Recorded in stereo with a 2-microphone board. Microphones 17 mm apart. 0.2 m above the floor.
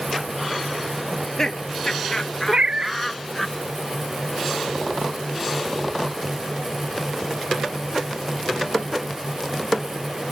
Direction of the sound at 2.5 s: 65° right (ahead or behind).